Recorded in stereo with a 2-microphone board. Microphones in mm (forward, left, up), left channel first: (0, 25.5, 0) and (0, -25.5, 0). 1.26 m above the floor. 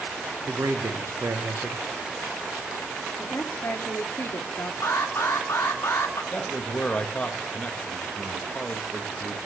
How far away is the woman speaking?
About 1.2 m.